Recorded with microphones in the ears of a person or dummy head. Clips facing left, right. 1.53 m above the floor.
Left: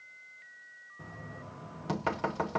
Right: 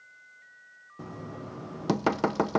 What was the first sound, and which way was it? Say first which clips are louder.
Knocking: right 7 dB; 65° right (ahead or behind).